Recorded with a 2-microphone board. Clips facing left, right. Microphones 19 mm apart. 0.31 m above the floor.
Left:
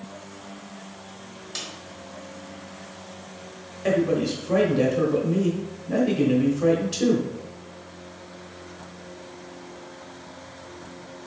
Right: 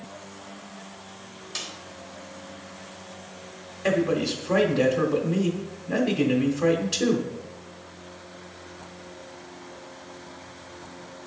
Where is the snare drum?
Centre (ahead or behind), 1.5 m.